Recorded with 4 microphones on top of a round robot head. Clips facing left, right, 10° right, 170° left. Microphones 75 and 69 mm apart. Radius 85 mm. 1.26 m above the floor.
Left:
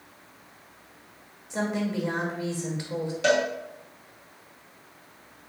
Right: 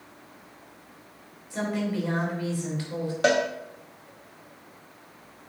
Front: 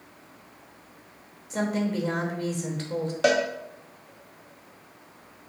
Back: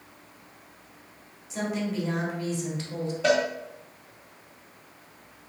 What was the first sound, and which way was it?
A woman speaking, 20° left.